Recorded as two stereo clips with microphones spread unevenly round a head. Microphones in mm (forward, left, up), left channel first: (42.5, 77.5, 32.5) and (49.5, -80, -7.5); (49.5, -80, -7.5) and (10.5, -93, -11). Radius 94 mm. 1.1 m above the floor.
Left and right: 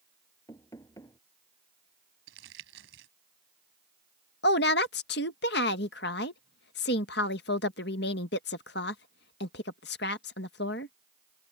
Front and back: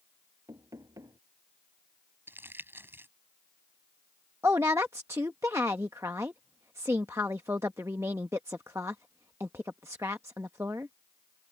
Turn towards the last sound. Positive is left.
turn(degrees=135)